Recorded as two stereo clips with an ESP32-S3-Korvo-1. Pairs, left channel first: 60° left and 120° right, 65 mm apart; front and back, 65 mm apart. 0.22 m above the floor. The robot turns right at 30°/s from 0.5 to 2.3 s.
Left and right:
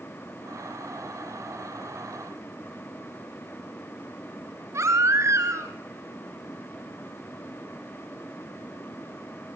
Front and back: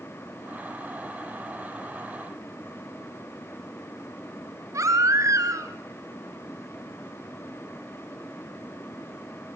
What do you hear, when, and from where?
4.7 s a baby crying: 155° right, 2.5 m